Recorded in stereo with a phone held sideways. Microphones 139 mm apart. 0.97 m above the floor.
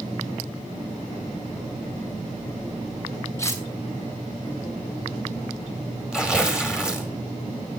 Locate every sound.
3.4 s cutlery clinking: 20° left (ahead or behind), 2.5 m
6.1 s tearing paper: 5° right (ahead or behind), 3 m